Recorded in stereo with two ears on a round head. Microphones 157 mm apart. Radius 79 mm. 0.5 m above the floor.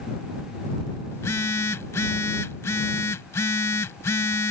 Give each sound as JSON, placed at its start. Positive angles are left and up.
{"t": 1.1, "sound": "a phone buzzing", "side_deg": 15}